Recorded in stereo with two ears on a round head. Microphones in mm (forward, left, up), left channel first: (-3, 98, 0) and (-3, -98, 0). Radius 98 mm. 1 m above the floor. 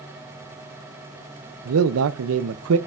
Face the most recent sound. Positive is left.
turn(degrees=-70)  # may be behind; listen again after turning